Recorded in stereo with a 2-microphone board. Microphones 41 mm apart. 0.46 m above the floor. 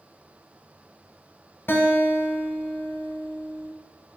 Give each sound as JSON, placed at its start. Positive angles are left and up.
{"t": 1.7, "sound": "a guitar", "side_deg": 65, "distance_m": 0.5}